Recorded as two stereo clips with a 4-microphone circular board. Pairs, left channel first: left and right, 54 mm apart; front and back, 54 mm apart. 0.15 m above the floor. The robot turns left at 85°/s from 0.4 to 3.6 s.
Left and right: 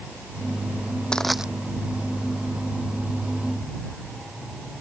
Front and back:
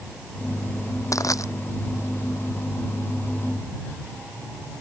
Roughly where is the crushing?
Ahead.